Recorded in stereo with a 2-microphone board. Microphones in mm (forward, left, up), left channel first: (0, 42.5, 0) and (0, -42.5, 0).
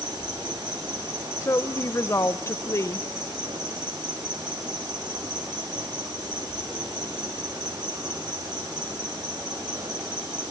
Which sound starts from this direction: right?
An insect, at 0.0 s.